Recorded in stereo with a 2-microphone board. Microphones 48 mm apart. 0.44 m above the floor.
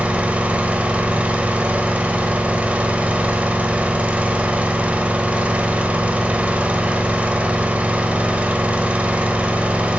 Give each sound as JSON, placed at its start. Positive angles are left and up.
{"t": 0.0, "sound": "an engine running", "side_deg": -30, "distance_m": 1.1}